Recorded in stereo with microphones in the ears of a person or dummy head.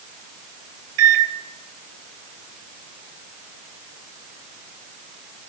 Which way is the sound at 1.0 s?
70° right (ahead or behind).